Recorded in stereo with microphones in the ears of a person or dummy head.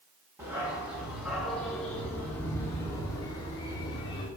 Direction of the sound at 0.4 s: 15° right (ahead or behind).